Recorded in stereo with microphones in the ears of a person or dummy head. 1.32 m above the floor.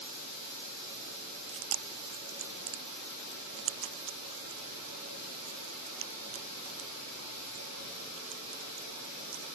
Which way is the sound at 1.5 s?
55° right (ahead or behind).